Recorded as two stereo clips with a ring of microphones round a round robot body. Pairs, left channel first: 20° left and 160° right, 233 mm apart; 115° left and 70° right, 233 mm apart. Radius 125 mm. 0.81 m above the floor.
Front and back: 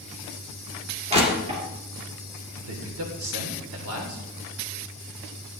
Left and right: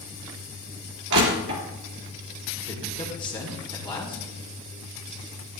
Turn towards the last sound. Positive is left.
turn(degrees=180)